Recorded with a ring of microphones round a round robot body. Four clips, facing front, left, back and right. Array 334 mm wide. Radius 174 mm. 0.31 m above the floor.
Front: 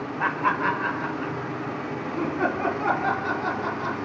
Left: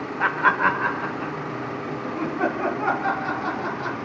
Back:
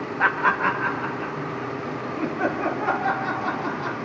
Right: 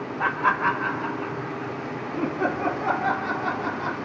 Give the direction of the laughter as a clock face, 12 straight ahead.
7 o'clock.